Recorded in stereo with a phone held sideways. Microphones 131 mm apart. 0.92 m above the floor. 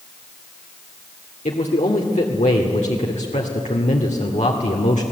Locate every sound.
1.4 s a man speaking: 70° left (ahead or behind), 2 m